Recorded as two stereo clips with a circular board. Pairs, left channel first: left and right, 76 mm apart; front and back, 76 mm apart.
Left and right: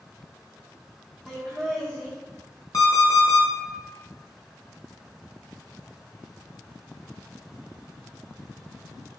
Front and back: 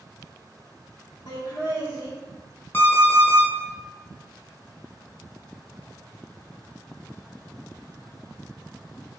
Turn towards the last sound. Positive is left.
turn(degrees=60)